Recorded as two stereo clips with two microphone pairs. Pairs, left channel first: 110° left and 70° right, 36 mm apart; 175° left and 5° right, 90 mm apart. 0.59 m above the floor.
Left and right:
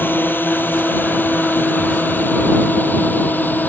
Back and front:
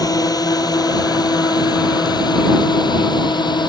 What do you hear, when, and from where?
0.0 s a drone: 125° left; by 3.7 s 140° left